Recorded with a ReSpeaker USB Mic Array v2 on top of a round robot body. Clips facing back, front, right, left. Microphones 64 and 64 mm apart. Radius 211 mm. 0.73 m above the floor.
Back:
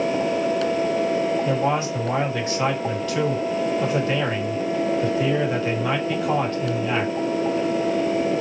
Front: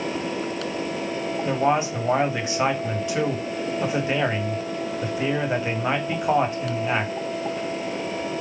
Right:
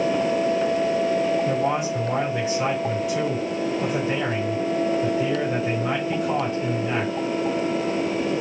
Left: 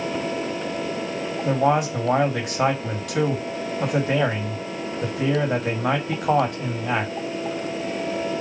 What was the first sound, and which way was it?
A man speaking, 70° left.